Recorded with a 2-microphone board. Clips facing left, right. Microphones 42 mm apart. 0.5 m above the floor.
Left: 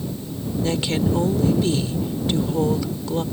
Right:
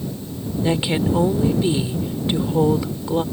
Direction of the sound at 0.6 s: 15° right (ahead or behind).